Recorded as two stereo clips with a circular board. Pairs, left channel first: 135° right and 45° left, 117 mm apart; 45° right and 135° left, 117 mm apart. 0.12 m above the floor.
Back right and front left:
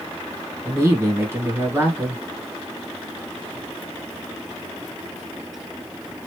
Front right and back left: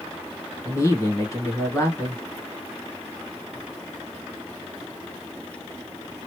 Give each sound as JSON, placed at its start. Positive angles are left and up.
{"t": 0.7, "sound": "a woman speaking", "azimuth_deg": -5, "distance_m": 1.4}